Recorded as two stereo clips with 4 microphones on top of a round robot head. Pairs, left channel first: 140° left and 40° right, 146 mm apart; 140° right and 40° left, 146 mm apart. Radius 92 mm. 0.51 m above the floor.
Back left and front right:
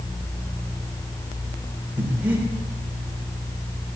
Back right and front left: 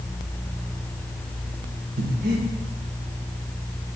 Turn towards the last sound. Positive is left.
turn(degrees=40)